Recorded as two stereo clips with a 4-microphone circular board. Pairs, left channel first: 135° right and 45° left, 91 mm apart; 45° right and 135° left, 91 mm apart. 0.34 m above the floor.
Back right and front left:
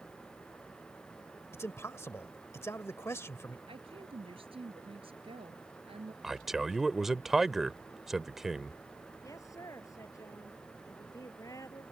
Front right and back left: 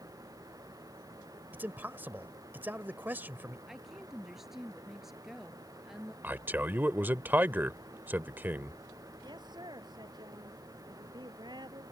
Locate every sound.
1.5 s a man speaking: 175° right
3.7 s a woman speaking: 50° left
6.2 s a man speaking: 125° left
9.2 s a woman speaking: 170° left